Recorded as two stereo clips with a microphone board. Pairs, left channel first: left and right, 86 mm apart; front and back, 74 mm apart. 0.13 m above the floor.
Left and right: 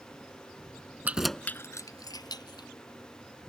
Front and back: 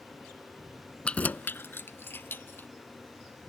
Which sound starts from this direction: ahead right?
Keys jangling, at 1.1 s.